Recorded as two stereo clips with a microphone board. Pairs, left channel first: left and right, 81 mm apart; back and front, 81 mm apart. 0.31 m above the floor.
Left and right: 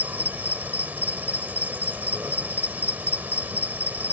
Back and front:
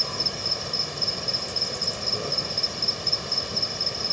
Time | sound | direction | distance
0.0 | an insect | 90° right | ?